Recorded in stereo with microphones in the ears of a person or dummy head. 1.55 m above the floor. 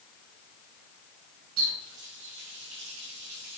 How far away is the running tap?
About 7 m.